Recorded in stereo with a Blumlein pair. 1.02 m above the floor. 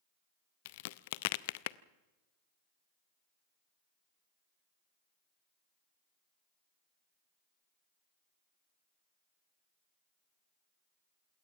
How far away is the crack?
About 0.6 m.